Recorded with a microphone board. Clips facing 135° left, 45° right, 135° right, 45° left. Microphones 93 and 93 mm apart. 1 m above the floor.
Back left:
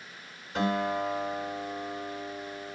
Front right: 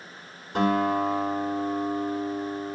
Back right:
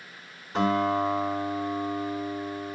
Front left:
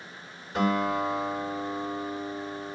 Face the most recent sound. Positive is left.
turn(degrees=-75)